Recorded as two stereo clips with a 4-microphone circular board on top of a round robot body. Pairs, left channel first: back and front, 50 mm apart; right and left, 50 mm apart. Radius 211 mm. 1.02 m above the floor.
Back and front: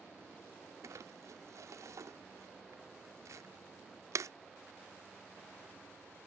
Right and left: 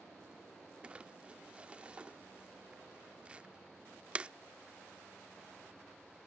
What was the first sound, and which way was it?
Crumpling, 20° left.